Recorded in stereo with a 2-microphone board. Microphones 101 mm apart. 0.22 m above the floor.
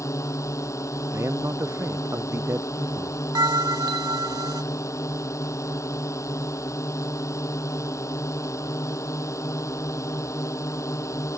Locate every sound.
0.0 s a drone: 30° left (ahead or behind)
1.1 s a man speaking: 30° right (ahead or behind)
3.4 s a bell: 45° right (ahead or behind)